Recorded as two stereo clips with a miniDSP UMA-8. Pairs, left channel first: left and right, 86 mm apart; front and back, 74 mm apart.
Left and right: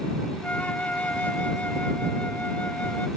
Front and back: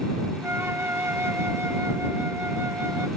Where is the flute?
150° left.